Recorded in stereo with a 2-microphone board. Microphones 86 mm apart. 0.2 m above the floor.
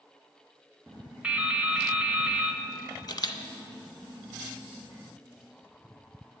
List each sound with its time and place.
1.2 s dripping: 15° right (ahead or behind), 0.6 m
3.1 s a camera shutter: 55° left (ahead or behind), 0.6 m